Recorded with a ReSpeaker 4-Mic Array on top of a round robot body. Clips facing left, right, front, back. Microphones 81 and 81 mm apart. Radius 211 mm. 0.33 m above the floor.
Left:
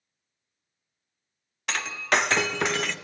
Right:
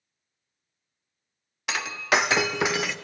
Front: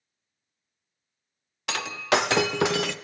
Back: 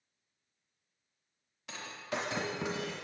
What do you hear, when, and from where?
1.7 s breaking glass: 5° right, 0.8 m